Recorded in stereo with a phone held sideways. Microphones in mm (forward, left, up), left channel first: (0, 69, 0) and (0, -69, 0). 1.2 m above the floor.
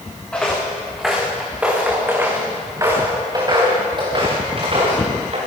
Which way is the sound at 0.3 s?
5° left (ahead or behind).